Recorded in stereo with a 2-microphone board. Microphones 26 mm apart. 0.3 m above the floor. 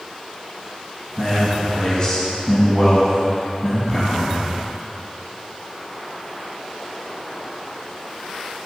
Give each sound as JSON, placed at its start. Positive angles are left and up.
{"t": 1.2, "sound": "a man speaking", "side_deg": 35, "distance_m": 2.5}